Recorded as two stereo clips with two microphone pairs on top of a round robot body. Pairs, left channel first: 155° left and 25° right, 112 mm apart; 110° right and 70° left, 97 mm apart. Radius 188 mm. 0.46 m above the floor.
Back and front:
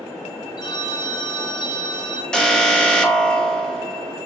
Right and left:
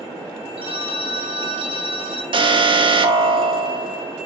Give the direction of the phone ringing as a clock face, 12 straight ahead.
9 o'clock.